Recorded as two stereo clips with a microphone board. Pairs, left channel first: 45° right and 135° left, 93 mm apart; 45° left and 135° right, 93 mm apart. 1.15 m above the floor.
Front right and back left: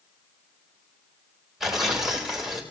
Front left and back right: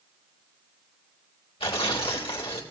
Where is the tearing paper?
50° left, 3 m.